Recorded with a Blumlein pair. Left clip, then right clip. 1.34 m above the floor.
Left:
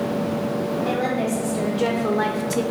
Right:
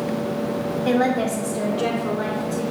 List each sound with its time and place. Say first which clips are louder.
0.8 s a woman speaking: right 5 dB; 25° right, 0.9 m; by 2.6 s 55° left, 0.5 m